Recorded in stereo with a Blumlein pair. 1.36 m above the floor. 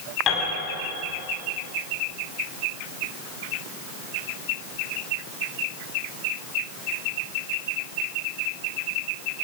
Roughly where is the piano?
Ahead left.